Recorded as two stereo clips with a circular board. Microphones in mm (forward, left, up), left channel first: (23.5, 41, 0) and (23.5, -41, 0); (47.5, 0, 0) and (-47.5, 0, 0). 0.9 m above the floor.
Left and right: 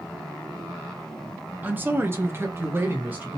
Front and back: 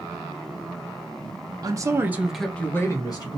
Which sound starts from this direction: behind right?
A man speaking, at 1.6 s.